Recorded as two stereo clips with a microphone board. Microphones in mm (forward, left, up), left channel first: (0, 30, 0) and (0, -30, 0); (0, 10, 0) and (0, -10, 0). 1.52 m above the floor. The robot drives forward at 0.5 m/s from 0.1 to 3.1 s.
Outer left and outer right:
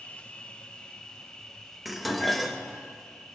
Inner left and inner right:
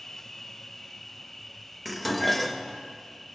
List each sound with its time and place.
0.0 s an insect: 20° left (ahead or behind), 1.1 m; by 3.4 s 10° left (ahead or behind), 2.5 m
1.9 s dishes clattering: 5° right (ahead or behind), 1.0 m; by 2.8 s centre (ahead or behind), 1.4 m